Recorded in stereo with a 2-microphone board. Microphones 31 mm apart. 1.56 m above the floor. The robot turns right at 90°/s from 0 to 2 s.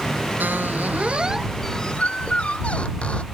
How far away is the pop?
I don't hear a pop.